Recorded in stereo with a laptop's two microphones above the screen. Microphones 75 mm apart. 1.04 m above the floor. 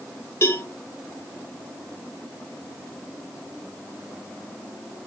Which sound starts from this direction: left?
A cowbell, at 0.4 s.